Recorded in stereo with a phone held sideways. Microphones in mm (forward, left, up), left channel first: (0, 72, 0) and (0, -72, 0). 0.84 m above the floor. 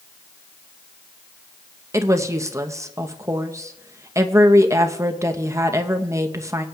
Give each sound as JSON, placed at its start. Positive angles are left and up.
{"t": 1.9, "sound": "a woman speaking", "side_deg": -20, "distance_m": 0.6}